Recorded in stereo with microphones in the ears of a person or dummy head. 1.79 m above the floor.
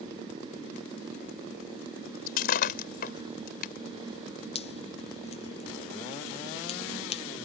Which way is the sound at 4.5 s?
30° left (ahead or behind).